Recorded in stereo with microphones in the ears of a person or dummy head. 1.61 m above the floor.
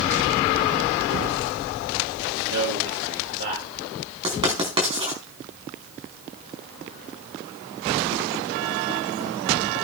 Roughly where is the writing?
Right.